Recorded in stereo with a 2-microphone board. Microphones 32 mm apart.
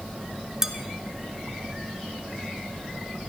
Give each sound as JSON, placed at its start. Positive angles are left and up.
{"t": 0.6, "sound": "dishes clattering", "side_deg": -15, "distance_m": 1.0}